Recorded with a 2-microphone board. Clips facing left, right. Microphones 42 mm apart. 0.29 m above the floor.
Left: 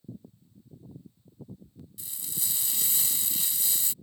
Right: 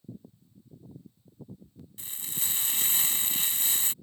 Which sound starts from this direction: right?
Frying, at 2.0 s.